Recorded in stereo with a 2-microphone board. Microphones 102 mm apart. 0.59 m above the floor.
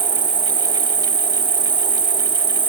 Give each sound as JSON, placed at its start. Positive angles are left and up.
{"t": 0.0, "sound": "an insect", "side_deg": -55}